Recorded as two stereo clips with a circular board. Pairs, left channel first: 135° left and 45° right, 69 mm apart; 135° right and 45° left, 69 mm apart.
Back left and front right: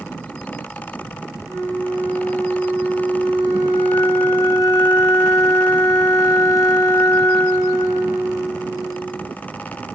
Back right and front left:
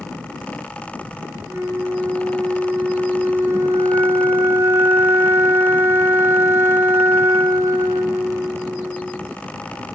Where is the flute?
100° left, 3.5 m.